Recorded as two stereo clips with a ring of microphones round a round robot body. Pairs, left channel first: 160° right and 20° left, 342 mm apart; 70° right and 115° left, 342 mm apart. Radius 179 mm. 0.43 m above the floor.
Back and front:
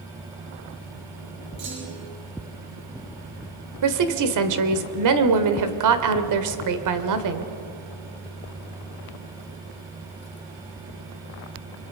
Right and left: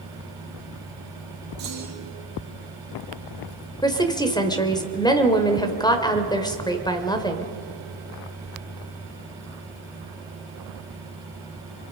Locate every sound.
1.6 s a clunk: 50° left, 7.5 m
3.8 s a woman speaking: 10° left, 1.9 m